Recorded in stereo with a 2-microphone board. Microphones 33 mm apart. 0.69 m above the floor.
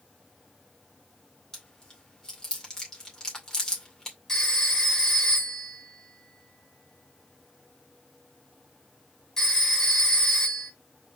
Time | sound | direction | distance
1.5 | chewing | 20° left (ahead or behind) | 2.5 m
4.3 | a phone ringing | 15° left (ahead or behind) | 2 m